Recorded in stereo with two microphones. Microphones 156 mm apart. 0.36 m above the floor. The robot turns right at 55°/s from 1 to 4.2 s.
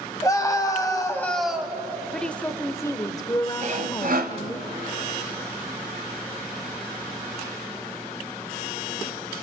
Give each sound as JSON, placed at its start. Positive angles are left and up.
{"t": 0.2, "sound": "a scream", "azimuth_deg": 155, "distance_m": 2.5}
{"t": 2.1, "sound": "a woman speaking", "side_deg": 5, "distance_m": 0.8}
{"t": 3.6, "sound": "sawing", "azimuth_deg": -125, "distance_m": 1.4}